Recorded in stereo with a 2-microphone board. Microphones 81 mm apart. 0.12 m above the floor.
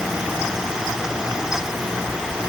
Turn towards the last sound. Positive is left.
No sound to turn to.